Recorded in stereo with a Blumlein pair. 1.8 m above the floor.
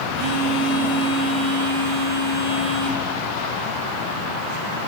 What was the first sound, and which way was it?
A phone buzzing, 35° right.